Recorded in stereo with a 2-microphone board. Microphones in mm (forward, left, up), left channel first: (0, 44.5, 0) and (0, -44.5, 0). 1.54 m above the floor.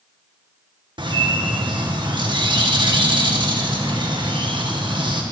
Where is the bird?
55° right (ahead or behind), 1.6 m.